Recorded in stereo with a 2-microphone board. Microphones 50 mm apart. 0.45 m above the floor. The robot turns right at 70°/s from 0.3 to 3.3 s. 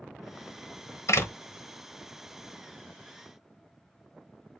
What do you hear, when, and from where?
1.1 s a door slam: 70° left (ahead or behind), 1.2 m; by 1.3 s 60° left (ahead or behind), 1.2 m